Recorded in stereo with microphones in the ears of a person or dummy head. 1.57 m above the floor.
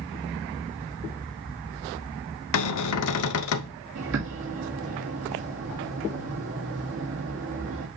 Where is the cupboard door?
80° left, 0.7 m.